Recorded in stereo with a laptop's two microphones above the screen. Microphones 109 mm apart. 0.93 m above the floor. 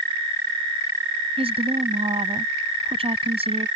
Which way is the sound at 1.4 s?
60° right (ahead or behind).